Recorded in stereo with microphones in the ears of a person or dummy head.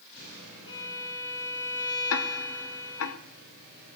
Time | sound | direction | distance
0.7 | a violin | 25° left (ahead or behind) | 3 m
2.1 | ticking | 75° left (ahead or behind) | 1.0 m